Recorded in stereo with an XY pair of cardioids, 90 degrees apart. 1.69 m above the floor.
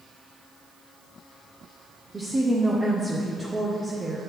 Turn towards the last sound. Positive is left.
turn(degrees=-25)